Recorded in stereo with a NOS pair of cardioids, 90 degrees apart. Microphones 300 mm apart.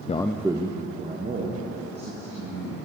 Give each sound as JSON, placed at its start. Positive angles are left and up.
{"t": 0.1, "sound": "a man speaking", "azimuth_deg": 25, "distance_m": 0.5}